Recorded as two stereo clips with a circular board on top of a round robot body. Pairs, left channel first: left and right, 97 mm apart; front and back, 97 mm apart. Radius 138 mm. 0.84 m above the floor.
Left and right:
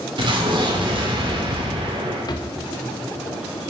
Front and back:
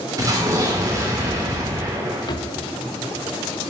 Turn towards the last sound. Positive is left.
turn(degrees=40)